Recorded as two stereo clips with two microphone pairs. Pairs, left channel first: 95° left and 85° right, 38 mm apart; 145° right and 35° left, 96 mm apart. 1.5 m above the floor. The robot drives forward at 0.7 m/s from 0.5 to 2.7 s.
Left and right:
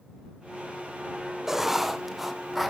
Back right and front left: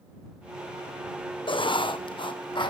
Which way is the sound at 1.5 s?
165° right.